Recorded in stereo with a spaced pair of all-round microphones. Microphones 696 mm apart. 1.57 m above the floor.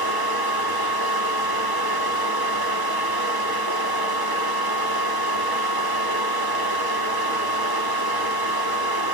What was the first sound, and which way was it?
A fan, 30° right (ahead or behind).